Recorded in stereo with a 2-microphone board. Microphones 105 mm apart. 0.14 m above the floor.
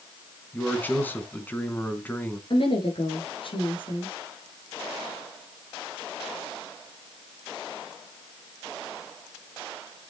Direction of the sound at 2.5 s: 55° left (ahead or behind).